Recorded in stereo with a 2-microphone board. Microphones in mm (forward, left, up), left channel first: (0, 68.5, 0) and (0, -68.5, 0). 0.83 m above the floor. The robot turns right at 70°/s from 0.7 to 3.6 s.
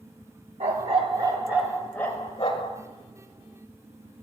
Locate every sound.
0.6 s a dog barking: 75° right, 0.9 m; by 2.8 s 70° left, 0.9 m